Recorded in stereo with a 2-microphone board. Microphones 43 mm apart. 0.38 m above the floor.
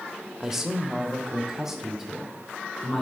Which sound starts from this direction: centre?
A man speaking, at 0.4 s.